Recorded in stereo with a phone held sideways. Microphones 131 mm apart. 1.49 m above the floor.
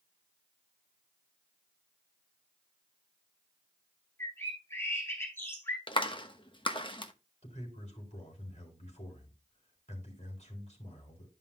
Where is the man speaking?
55° left (ahead or behind), 4 m.